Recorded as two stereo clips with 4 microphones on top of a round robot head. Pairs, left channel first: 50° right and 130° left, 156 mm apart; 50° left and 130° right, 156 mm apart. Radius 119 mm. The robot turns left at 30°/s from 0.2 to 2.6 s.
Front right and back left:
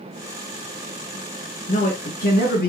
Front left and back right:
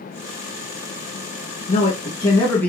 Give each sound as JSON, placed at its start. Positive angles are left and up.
{"t": 1.7, "sound": "a man speaking", "azimuth_deg": -5, "distance_m": 2.0}